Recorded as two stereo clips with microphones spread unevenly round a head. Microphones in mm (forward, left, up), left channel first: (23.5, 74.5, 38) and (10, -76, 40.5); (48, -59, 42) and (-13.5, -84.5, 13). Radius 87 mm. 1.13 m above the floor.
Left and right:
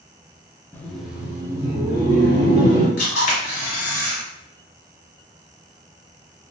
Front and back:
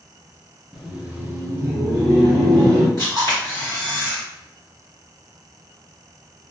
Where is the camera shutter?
130° left, 1.3 m.